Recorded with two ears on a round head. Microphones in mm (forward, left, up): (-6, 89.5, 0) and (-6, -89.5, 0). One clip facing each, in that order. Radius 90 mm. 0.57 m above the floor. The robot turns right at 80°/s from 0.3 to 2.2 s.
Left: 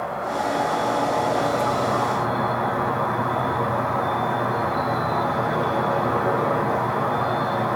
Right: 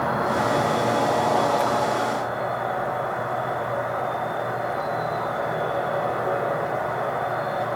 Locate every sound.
0.0 s an insect: 70° right, 2.5 m; by 7.8 s 80° left, 2.5 m